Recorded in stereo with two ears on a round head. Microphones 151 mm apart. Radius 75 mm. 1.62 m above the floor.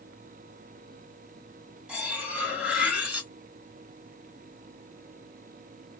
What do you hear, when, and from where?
1.9 s cutlery clinking: 10° right (ahead or behind), 1.4 m